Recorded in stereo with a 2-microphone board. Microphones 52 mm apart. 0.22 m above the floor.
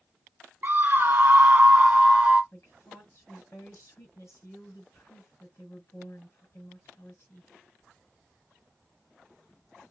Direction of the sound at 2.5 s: 60° left (ahead or behind).